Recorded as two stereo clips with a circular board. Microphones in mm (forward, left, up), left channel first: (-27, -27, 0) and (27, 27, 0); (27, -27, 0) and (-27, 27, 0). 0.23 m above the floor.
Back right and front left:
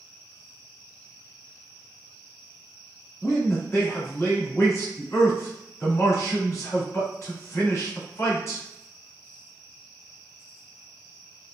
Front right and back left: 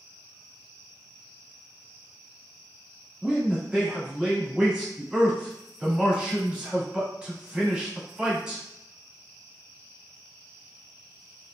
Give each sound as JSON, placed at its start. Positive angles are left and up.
{"t": 3.2, "sound": "a man speaking", "azimuth_deg": -150, "distance_m": 1.6}